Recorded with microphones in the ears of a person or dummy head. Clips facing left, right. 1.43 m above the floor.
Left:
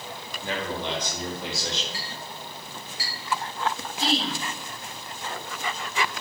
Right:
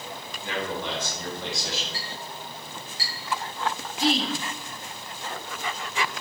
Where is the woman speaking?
Centre (ahead or behind), 1.3 m.